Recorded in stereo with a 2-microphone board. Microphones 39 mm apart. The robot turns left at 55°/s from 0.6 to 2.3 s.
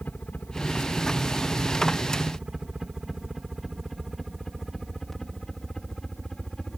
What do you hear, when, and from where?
0.0 s a helicopter: 45° left (ahead or behind); by 6.8 s 15° left (ahead or behind)